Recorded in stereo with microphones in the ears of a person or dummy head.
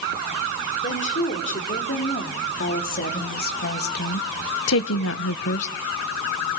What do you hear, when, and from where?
0.8 s a woman speaking: 45° left (ahead or behind), 5.5 m; by 5.7 s 40° left (ahead or behind), 1.0 m